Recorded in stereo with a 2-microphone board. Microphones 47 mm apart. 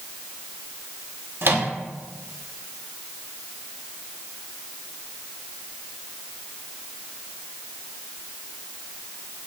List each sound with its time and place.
1.4 s a microwave: 55° right (ahead or behind), 1.3 m